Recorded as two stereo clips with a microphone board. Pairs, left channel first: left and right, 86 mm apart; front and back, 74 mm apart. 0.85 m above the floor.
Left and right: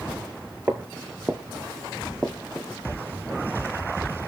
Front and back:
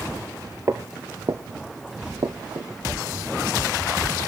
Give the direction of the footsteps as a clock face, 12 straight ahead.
5 o'clock.